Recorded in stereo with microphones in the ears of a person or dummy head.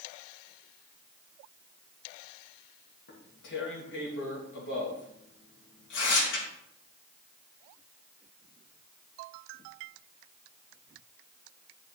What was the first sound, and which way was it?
Tearing paper, 75° left (ahead or behind).